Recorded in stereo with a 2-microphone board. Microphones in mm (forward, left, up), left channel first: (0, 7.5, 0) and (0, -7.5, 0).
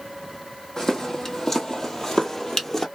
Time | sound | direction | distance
0.8 | footsteps | 35° left (ahead or behind) | 1.6 m